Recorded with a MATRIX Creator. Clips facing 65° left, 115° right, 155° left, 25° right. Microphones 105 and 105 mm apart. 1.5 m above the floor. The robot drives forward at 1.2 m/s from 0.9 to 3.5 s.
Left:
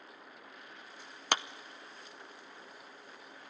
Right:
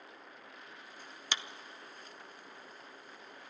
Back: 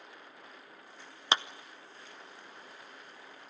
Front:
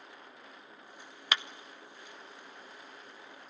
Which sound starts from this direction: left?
A clap, at 1.3 s.